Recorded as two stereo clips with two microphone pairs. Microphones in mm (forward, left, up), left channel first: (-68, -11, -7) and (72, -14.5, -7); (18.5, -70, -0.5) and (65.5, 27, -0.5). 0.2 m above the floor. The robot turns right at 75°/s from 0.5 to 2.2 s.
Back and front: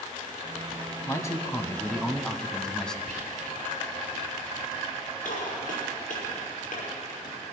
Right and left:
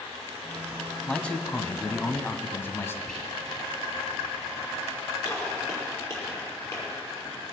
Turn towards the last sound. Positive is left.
turn(degrees=180)